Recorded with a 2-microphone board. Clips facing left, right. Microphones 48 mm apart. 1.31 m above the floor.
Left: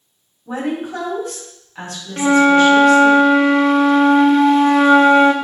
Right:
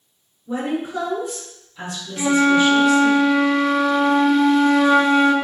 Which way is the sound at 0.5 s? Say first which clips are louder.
Left 1 dB; 70° left (ahead or behind).